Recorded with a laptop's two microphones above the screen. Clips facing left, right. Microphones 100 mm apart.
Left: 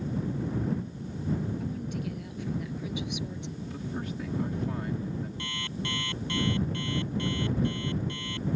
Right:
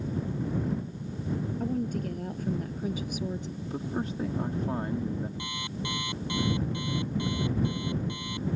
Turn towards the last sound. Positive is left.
turn(degrees=-15)  # may be behind; listen again after turning